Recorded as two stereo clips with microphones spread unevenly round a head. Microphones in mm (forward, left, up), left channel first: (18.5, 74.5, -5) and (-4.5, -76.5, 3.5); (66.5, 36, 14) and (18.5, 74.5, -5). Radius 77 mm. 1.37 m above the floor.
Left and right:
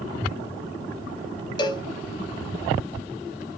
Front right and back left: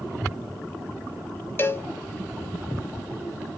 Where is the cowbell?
20° left, 0.6 m.